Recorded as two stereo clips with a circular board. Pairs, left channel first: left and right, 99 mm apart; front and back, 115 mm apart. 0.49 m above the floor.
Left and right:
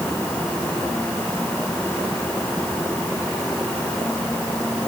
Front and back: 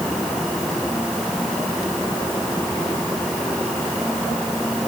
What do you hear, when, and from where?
Only background noise.